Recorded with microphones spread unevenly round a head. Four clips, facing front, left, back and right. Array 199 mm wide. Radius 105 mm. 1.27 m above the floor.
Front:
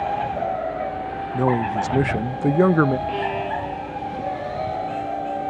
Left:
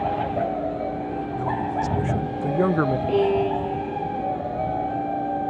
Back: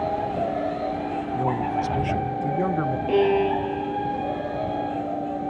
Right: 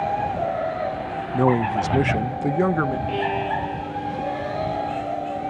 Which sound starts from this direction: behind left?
A violin, at 3.1 s.